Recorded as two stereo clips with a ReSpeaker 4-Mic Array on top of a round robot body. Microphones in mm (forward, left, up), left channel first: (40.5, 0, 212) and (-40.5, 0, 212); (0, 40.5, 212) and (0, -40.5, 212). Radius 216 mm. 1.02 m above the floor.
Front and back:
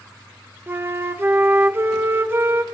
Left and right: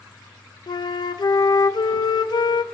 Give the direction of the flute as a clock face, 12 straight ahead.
8 o'clock.